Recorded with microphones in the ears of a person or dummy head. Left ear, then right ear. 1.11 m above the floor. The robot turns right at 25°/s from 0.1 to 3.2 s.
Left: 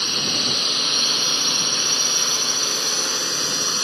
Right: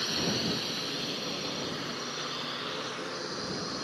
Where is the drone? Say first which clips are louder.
Left 10 dB; 25° left; by 3.8 s 105° left.